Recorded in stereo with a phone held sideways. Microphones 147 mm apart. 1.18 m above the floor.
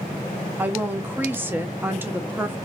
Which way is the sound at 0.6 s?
15° right (ahead or behind).